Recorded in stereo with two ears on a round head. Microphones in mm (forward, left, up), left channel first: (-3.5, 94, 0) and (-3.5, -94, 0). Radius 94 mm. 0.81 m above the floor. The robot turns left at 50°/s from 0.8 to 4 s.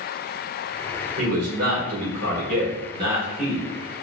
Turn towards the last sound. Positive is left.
turn(degrees=155)